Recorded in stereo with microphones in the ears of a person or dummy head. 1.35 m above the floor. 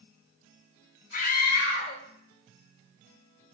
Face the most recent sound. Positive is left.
turn(degrees=40)  # may be behind; listen again after turning